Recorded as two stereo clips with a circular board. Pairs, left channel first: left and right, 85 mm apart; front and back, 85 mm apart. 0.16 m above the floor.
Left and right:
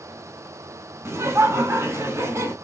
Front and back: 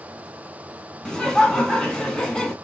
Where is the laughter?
75° right, 1.2 m.